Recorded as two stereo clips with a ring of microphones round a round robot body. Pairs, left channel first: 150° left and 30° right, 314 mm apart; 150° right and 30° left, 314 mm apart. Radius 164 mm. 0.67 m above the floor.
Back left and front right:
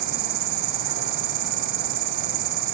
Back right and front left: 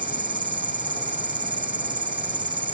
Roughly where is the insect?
Ahead right.